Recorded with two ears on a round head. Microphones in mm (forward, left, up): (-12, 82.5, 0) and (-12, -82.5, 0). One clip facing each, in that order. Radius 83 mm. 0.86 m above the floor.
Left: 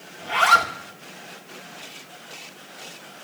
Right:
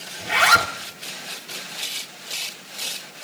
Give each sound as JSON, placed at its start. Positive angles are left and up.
{"t": 0.2, "sound": "a zipper", "side_deg": -20, "distance_m": 1.2}